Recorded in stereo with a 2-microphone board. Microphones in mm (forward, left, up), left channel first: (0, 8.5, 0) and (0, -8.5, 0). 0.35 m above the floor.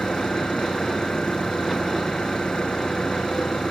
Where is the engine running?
85° left.